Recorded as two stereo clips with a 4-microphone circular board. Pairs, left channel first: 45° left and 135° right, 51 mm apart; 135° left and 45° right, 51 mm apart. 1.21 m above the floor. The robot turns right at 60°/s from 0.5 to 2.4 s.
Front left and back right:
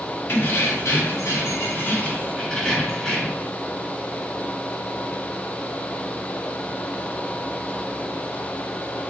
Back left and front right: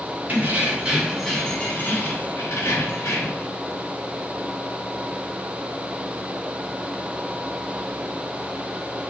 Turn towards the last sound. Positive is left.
turn(degrees=125)